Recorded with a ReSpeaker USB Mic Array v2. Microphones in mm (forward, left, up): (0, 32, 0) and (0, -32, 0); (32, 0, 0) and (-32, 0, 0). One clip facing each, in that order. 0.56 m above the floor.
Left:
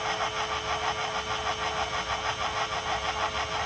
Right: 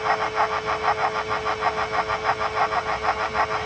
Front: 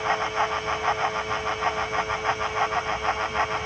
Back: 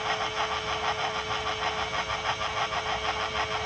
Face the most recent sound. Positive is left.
No sound to turn to.